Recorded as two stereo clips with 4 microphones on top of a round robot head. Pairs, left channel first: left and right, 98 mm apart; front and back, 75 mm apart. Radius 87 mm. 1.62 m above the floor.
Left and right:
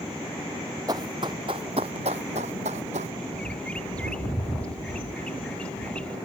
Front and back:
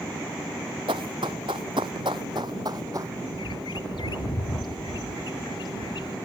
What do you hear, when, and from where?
0.9 s running footsteps: 150° right; by 3.1 s 115° right
3.3 s a bird: 10° left